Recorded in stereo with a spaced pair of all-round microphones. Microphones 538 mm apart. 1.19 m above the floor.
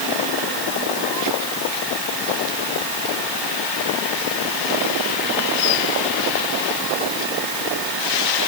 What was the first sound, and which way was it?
Only background noise.